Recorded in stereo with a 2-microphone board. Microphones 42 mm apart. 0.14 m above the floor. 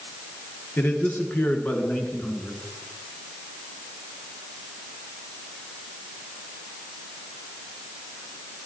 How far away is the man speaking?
About 2 m.